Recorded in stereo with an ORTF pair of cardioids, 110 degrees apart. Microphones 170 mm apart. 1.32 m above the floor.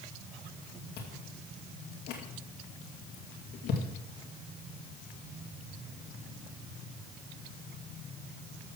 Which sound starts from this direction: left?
Chewing, at 1.0 s.